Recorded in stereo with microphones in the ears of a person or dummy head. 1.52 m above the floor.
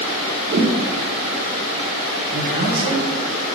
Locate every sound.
0.5 s a whoosh: 55° right (ahead or behind), 0.9 m
2.3 s a man speaking: 45° right (ahead or behind), 1.4 m